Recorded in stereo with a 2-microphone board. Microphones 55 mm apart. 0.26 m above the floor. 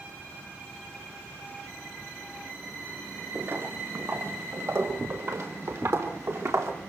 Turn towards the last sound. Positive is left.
turn(degrees=-70)  # may be behind; listen again after turning